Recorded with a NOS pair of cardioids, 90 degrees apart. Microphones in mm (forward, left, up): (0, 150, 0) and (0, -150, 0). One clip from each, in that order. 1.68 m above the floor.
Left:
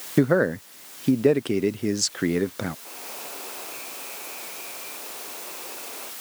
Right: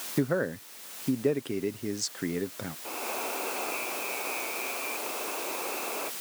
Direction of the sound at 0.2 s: 35° left.